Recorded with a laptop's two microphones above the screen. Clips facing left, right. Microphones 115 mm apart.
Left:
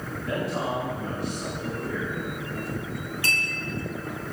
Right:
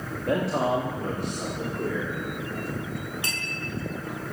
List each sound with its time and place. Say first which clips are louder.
0.3 s a man speaking: right 4 dB; 60° right (ahead or behind), 1.4 m; by 2.2 s 75° right (ahead or behind), 3.5 m
3.2 s a clink: left 3 dB; 20° right (ahead or behind), 3.5 m